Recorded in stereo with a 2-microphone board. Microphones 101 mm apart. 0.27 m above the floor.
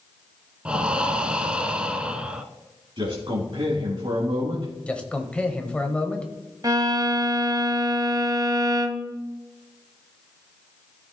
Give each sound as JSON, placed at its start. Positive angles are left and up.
{"t": 0.7, "sound": "breathing", "side_deg": -10, "distance_m": 0.7}
{"t": 3.0, "sound": "a man speaking", "side_deg": -55, "distance_m": 2.0}
{"t": 4.9, "sound": "a man speaking", "side_deg": 10, "distance_m": 1.0}
{"t": 6.6, "sound": "a violin", "side_deg": -35, "distance_m": 0.7}